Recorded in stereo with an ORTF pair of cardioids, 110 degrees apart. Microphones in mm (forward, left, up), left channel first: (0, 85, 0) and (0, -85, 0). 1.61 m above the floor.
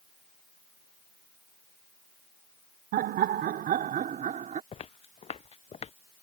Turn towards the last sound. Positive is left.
turn(degrees=40)